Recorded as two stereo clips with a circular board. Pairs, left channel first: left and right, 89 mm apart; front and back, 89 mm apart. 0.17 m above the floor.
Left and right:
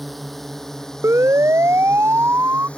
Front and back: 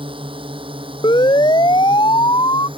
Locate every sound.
0.0 s a drone: straight behind; by 2.8 s 165° left
1.0 s a siren: 30° right; by 2.7 s 25° right